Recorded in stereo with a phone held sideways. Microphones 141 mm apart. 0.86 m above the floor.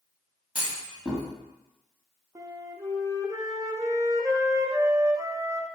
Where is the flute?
20° right (ahead or behind), 0.5 m.